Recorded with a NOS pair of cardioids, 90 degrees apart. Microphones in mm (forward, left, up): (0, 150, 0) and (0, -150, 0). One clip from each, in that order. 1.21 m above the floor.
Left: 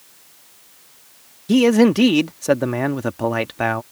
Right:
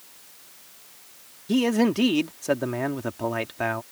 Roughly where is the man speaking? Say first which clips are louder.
Left 8 dB; ahead left.